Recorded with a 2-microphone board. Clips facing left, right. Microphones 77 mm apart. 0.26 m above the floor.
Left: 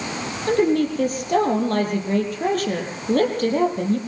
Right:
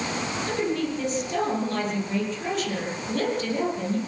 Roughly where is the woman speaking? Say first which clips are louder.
Left 10 dB; left.